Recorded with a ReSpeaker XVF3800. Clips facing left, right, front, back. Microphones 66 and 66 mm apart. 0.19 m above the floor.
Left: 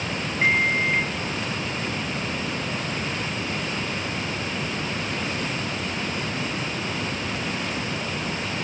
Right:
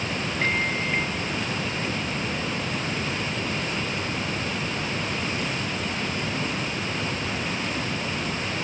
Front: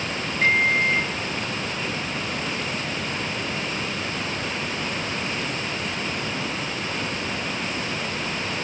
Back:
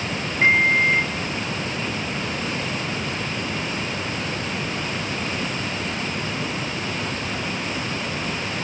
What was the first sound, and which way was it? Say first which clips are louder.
A microwave: left 6 dB, back 3 dB; 145° left.